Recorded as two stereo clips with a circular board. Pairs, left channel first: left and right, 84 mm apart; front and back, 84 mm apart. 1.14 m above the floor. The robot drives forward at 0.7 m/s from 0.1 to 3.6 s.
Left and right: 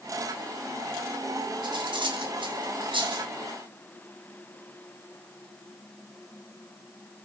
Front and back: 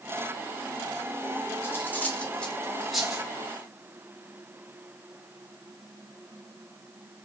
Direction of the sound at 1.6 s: 65° right.